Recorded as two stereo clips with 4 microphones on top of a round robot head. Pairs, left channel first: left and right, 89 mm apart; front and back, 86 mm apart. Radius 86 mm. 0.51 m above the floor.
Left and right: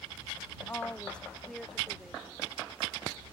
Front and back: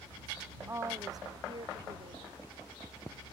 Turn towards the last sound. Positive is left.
turn(degrees=-170)